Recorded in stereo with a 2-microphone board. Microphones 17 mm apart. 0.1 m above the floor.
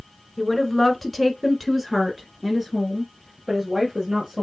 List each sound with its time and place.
0.4 s a woman speaking: 10° left (ahead or behind), 1.3 m; by 4.4 s 30° right (ahead or behind), 2.0 m